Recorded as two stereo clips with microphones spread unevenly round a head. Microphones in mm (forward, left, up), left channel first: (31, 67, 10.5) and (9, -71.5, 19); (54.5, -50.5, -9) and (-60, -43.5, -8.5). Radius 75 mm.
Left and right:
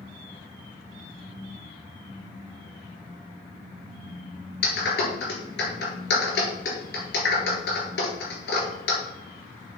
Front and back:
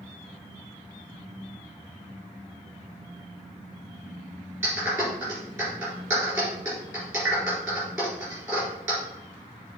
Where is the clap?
105° left, 4 m.